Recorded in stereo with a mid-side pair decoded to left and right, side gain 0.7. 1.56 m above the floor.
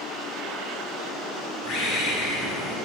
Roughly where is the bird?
Ahead left.